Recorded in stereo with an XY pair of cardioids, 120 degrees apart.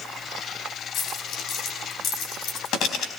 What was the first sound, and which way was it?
A dropped coin, 70° left.